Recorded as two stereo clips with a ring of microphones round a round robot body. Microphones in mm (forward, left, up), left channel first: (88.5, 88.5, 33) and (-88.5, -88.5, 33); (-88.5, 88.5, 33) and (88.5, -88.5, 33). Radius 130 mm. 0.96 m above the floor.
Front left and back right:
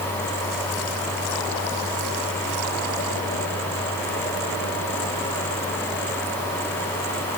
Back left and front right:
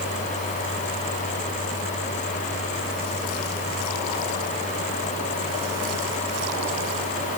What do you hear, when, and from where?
Only background noise.